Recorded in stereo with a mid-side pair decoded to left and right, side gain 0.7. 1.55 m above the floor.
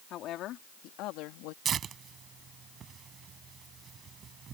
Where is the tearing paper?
35° right.